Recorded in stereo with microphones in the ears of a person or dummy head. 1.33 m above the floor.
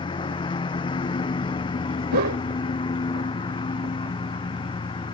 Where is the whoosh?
60° right (ahead or behind).